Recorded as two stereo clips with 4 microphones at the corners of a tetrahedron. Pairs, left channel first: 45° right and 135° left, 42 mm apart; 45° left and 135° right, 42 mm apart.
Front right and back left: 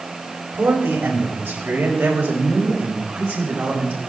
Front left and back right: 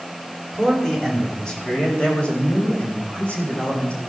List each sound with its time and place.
0.5 s a man speaking: 130° left, 5.5 m; by 4.0 s 95° left, 8 m